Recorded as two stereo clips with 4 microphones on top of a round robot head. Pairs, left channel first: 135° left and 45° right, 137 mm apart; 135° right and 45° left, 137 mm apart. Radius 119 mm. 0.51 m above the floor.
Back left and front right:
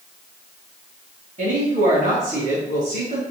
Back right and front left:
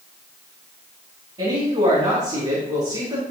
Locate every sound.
1.4 s a woman speaking: 5° right, 4 m